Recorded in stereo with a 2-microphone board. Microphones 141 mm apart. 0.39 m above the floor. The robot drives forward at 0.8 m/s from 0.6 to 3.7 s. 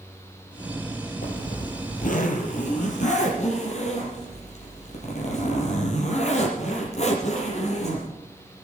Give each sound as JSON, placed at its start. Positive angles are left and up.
{"t": 1.2, "sound": "a zipper", "side_deg": 75, "distance_m": 3.5}